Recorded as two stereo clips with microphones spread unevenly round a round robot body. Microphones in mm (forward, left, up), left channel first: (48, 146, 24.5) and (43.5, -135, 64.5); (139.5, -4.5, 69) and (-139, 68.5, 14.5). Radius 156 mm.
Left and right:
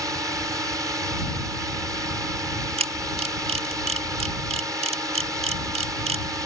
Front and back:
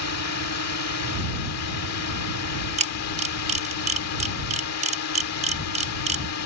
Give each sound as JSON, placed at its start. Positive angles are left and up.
{"t": 0.0, "sound": "a drone", "azimuth_deg": -5}
{"t": 2.8, "sound": "a camera shutter", "azimuth_deg": -160}